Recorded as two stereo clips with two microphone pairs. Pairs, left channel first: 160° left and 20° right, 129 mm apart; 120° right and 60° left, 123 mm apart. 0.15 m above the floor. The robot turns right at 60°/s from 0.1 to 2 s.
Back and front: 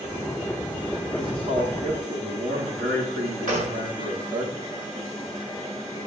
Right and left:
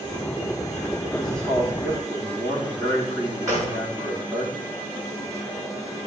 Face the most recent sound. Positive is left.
turn(degrees=-5)